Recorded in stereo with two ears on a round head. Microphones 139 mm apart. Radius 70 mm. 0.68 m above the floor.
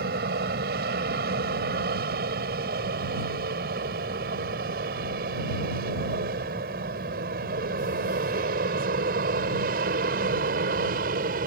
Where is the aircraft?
70° right (ahead or behind); by 11.5 s 60° right (ahead or behind).